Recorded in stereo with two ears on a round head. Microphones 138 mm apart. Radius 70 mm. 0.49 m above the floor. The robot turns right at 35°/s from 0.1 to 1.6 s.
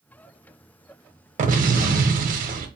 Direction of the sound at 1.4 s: 55° right (ahead or behind).